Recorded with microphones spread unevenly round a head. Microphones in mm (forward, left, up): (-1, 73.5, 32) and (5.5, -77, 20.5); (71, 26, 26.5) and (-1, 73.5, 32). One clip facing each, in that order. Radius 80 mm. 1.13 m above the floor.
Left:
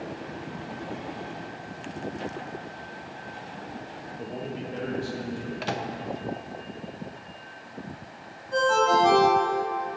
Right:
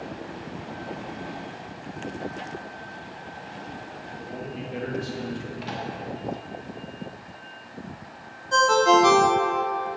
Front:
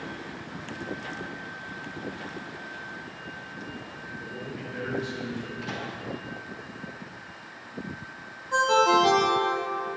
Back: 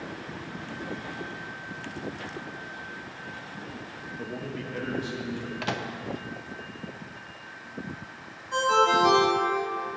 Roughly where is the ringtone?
Right.